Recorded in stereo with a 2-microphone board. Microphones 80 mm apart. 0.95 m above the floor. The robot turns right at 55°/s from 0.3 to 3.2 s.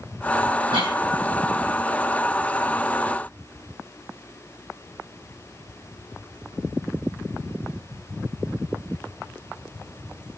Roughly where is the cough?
Right.